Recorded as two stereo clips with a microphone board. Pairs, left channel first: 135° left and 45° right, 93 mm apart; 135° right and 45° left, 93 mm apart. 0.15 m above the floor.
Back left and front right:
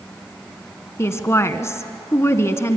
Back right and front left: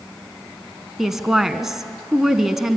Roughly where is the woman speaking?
Behind left.